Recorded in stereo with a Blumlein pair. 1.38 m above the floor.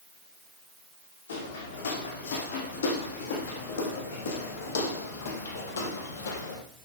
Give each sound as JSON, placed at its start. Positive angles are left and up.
{"t": 1.3, "sound": "footsteps", "azimuth_deg": 70, "distance_m": 5.5}